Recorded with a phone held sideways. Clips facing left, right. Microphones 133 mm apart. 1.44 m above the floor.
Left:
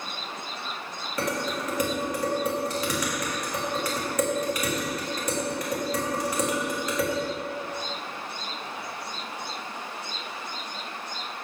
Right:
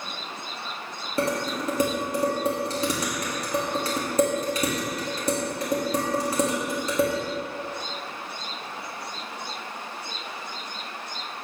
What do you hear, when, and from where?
1.2 s dishes clattering: 30° right (ahead or behind), 1.5 m